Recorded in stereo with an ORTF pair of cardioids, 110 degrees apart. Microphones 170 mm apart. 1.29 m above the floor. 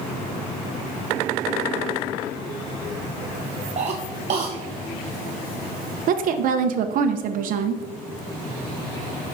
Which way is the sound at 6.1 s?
60° right.